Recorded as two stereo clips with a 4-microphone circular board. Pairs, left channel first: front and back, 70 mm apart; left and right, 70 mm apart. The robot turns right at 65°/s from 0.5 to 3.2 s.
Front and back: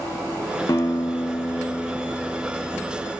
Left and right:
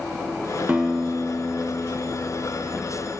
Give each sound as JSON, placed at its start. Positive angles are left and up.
{"t": 0.7, "sound": "a guitar", "azimuth_deg": -20, "distance_m": 0.9}